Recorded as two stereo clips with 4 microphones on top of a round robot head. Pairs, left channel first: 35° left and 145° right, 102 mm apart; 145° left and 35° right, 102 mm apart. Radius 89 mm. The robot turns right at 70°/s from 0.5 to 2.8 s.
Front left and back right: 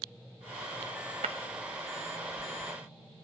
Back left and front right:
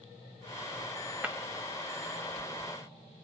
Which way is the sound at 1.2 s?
115° right.